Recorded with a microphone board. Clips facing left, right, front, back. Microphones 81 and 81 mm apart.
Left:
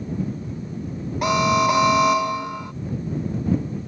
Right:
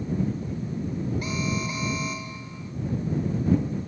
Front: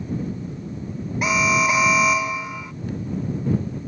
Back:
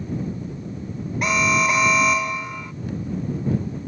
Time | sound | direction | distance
1.2 | an alarm | 90° left | ?